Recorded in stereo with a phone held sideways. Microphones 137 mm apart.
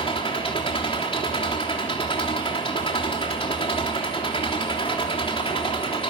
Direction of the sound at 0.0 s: 40° left (ahead or behind).